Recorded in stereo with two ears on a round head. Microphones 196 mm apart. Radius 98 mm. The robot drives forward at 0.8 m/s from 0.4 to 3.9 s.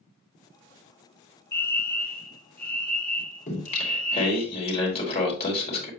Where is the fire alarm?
15° left (ahead or behind), 1.3 m; by 4.5 s 5° left (ahead or behind), 3 m.